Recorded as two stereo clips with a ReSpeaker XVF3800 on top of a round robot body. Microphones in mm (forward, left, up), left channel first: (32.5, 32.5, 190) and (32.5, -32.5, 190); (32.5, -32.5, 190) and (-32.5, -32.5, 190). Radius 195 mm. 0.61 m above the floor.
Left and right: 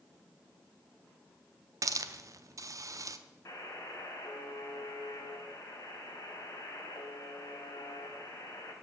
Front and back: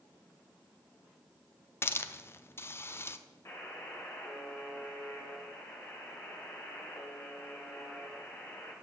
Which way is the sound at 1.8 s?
55° right.